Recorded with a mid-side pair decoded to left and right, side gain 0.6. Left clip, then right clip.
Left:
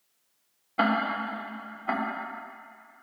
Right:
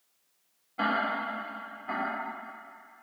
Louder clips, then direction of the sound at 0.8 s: Left 2 dB; 45° left.